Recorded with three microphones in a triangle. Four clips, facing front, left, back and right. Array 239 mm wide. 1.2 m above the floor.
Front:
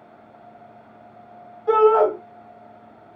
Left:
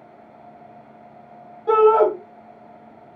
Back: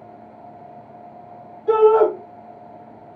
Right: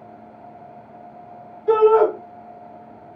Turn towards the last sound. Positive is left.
turn(degrees=95)